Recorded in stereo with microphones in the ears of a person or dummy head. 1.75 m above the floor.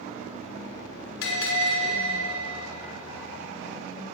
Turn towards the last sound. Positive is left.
turn(degrees=75)  # may be behind; listen again after turning